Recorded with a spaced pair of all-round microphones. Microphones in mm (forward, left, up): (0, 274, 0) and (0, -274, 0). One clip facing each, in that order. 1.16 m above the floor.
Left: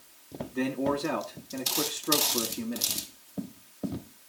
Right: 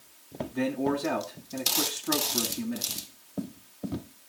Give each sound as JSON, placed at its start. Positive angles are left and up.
{"t": 0.5, "sound": "a man speaking", "side_deg": -10, "distance_m": 2.0}